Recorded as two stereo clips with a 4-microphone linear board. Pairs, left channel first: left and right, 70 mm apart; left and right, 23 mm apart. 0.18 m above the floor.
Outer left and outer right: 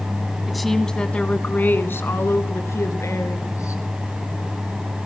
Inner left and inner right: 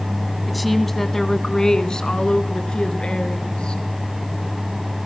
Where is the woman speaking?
Centre (ahead or behind), 1.2 m; by 3.8 s 50° left (ahead or behind), 3 m.